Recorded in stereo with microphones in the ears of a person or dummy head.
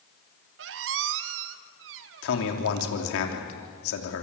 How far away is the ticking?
No ticking in this recording.